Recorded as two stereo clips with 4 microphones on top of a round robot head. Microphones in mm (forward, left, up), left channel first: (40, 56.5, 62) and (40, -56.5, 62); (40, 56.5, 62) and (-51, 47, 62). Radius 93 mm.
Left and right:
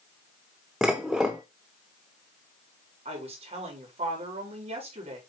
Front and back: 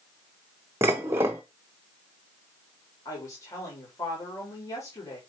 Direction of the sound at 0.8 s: 170° right.